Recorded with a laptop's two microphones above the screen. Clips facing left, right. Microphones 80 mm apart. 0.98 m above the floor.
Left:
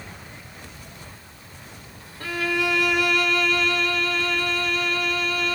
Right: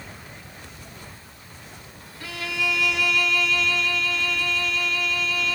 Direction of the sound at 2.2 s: 45° left (ahead or behind).